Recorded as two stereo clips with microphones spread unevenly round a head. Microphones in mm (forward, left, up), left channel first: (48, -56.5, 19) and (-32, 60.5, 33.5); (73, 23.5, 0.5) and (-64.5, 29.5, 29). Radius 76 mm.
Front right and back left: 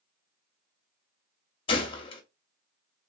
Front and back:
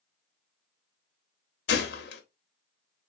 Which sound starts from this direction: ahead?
A gunshot, at 1.7 s.